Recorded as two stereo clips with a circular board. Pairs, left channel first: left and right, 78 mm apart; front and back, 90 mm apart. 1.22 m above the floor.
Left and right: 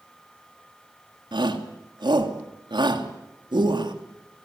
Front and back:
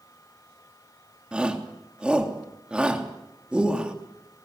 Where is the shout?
100° right, 3 m.